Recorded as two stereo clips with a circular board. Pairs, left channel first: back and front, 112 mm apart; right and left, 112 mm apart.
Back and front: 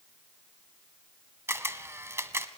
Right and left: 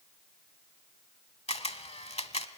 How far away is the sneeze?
No sneeze in this recording.